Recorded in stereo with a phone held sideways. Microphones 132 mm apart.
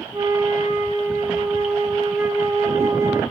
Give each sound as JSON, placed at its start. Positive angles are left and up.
{"t": 0.1, "sound": "a flute", "side_deg": -25, "distance_m": 2.0}